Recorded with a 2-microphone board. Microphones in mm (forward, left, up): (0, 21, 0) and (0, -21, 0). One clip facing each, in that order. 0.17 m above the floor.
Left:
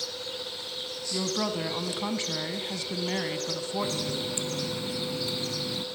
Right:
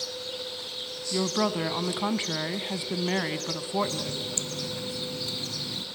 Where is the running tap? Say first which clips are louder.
Even; 20° left (ahead or behind), 0.9 m.